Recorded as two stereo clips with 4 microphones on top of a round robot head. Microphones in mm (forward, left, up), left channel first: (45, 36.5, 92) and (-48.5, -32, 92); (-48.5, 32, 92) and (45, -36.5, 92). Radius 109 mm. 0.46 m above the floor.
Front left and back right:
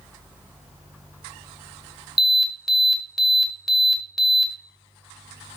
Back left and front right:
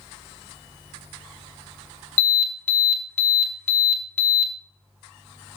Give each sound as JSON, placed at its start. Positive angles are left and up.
{"t": 2.2, "sound": "an alarm", "azimuth_deg": 125, "distance_m": 1.4}